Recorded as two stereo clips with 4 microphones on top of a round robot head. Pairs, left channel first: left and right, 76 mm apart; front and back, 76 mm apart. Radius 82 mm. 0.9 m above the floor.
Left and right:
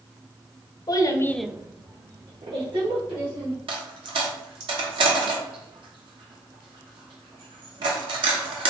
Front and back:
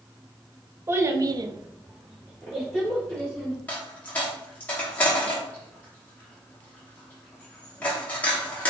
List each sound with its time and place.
0.9 s a child speaking: 120° left, 1.0 m; by 3.6 s 85° right, 3.5 m
3.7 s a dropped coin: 75° right, 0.9 m